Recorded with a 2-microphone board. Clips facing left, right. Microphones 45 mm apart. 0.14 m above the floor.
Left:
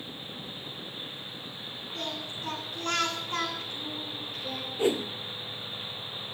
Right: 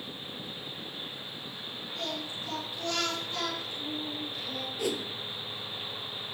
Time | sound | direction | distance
1.9 | singing | 50° left (ahead or behind) | 10 m
4.8 | a whoosh | 30° left (ahead or behind) | 0.6 m